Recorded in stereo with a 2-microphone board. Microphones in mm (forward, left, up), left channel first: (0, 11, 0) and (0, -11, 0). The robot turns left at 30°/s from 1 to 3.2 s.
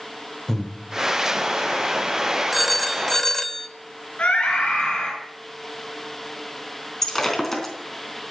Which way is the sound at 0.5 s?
20° left (ahead or behind).